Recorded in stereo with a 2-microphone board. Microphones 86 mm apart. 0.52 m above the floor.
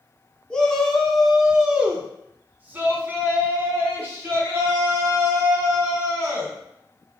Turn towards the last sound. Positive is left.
turn(degrees=-35)  # may be behind; listen again after turning